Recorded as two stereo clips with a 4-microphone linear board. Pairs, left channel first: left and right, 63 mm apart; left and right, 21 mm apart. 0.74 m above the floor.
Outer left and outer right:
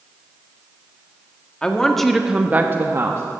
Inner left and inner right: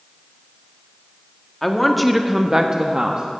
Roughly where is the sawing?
No sawing in this recording.